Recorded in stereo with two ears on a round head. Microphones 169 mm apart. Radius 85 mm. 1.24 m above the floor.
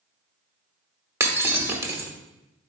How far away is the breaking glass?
About 0.9 m.